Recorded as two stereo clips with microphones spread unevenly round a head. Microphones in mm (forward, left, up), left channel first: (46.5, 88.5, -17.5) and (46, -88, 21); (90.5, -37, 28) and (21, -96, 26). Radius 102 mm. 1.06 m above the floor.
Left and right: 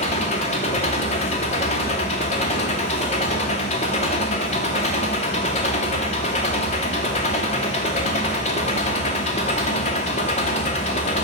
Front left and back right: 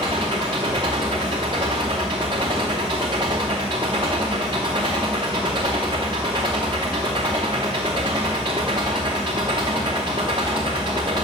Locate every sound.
0.0 s an engine running: 155° left, 0.9 m